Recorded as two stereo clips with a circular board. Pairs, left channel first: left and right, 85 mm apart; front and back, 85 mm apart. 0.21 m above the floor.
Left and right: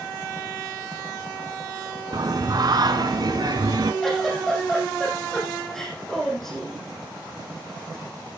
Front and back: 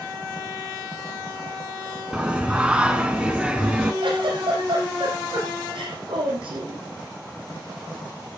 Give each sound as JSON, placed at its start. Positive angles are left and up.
{"t": 2.1, "sound": "singing", "azimuth_deg": -105, "distance_m": 1.5}
{"t": 4.0, "sound": "a giggle", "azimuth_deg": 175, "distance_m": 6.5}